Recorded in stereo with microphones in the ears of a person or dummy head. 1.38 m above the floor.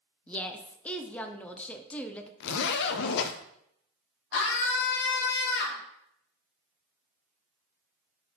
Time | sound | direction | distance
0.3 | a woman speaking | 10° left (ahead or behind) | 0.5 m
2.4 | a zipper | 65° left (ahead or behind) | 0.5 m
4.3 | a scream | 65° left (ahead or behind) | 1.3 m